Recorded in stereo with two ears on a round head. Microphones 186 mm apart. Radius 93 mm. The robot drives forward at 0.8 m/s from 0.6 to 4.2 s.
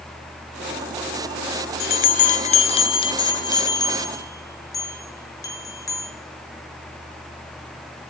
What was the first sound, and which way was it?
A bell, 50° left (ahead or behind).